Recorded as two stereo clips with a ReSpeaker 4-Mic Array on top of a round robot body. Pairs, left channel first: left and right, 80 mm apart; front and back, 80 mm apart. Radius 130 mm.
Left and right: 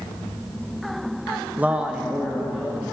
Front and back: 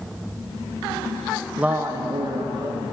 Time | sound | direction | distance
1.6 | a man speaking | 120° right | 0.9 m